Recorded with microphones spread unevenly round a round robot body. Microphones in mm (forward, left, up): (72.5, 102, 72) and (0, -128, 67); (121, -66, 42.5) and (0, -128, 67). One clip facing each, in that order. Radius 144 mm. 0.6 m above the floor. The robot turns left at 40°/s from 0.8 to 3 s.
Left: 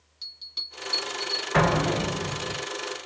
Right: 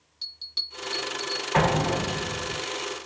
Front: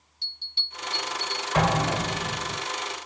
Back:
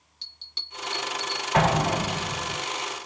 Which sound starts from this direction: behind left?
An explosion, at 1.5 s.